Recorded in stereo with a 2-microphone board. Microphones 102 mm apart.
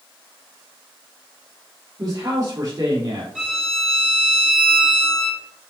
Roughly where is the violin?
Centre.